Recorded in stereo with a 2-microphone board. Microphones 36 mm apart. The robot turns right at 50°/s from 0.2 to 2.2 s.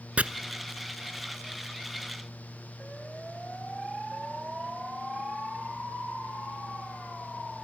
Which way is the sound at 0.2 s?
40° right (ahead or behind).